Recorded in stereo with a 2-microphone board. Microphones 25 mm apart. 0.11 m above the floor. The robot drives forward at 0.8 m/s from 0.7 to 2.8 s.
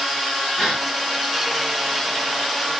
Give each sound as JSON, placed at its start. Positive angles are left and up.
{"t": 0.6, "sound": "a gasp", "side_deg": 0, "distance_m": 5.0}